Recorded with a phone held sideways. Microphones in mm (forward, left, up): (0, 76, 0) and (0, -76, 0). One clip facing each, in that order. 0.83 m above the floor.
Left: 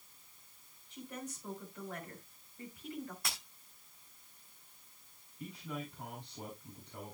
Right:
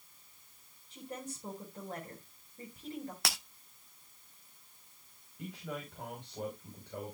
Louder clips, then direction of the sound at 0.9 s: Right 2 dB; 45° right (ahead or behind).